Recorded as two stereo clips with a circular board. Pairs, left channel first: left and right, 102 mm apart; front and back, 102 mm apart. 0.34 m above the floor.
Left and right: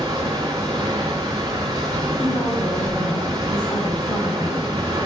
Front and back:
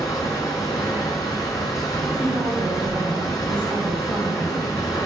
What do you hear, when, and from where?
0.0 s running water: 45° right, 3.5 m
2.2 s a woman speaking: 120° left, 2.0 m